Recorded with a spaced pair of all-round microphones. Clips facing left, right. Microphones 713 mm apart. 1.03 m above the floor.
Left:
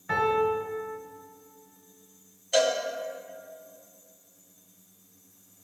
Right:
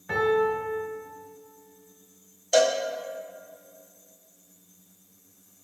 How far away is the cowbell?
About 0.9 m.